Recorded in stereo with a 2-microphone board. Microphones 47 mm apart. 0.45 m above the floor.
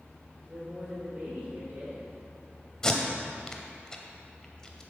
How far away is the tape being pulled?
About 0.7 m.